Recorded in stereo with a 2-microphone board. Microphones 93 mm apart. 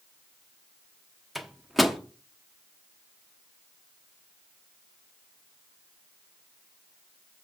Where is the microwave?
Centre (ahead or behind), 0.9 m.